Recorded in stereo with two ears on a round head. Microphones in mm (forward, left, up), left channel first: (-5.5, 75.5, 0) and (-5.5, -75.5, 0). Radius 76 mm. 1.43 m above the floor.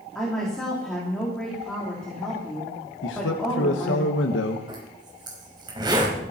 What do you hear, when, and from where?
0.1 s a woman speaking: 5° left (ahead or behind), 4 m
3.0 s a man speaking: 80° left, 1.3 m
4.7 s a zipper: 25° right (ahead or behind), 5 m